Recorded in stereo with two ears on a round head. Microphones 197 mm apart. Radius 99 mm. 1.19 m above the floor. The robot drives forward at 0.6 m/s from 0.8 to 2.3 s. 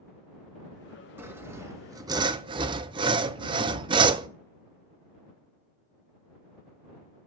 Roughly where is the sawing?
Centre.